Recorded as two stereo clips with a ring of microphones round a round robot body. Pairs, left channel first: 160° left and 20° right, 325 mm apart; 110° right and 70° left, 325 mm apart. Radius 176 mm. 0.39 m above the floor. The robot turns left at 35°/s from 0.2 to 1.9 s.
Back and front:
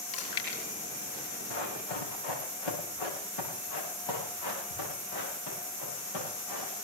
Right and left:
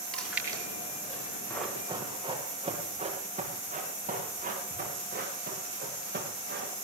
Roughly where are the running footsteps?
Behind.